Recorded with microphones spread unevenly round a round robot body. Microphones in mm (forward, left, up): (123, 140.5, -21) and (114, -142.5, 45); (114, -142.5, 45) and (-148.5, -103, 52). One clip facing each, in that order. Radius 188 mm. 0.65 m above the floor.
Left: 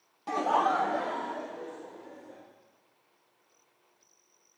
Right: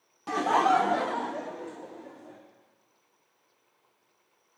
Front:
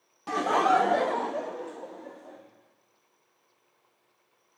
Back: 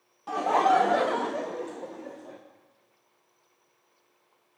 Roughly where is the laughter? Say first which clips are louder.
Right 3 dB, even; ahead.